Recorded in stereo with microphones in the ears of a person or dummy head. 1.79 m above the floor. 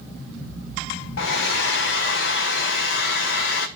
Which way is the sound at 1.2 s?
65° left (ahead or behind).